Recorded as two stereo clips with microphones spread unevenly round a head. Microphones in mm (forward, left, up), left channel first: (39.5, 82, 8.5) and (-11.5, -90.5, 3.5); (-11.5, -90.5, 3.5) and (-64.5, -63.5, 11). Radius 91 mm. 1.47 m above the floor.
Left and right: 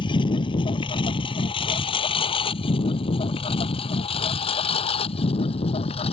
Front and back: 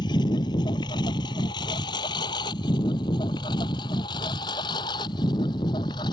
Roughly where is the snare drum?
I don't hear a snare drum.